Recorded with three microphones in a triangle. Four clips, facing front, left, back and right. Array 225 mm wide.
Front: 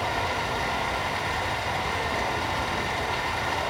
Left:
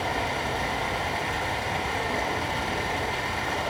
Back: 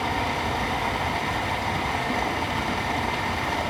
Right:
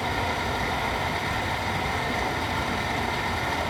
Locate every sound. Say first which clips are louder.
0.0 s running water: right 1 dB, back 1 dB; 175° right, 2 m